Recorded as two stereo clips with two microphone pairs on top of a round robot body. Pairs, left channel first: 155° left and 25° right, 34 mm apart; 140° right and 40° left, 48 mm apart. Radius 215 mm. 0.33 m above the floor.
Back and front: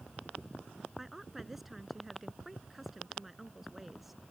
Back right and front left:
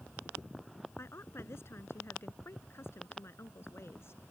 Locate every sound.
1.0 s a woman speaking: 110° right